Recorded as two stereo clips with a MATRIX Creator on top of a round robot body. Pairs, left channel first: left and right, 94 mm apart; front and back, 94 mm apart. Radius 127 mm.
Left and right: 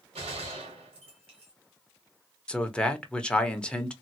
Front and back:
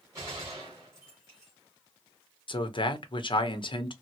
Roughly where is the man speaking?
Ahead.